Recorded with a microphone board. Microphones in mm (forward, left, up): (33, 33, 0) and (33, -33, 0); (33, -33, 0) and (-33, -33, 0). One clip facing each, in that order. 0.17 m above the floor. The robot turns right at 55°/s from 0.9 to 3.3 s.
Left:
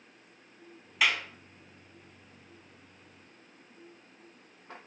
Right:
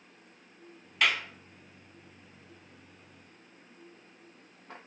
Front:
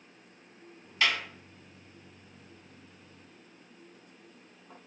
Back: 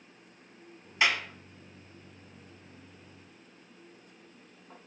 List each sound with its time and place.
1.0 s a clap: 165° left, 1.0 m; by 1.2 s 175° left, 1.0 m